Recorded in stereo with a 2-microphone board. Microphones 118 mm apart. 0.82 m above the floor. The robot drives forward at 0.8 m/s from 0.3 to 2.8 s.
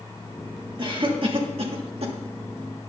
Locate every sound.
0.8 s a cough: 45° right (ahead or behind), 2.0 m; by 2.1 s 60° right (ahead or behind), 1.6 m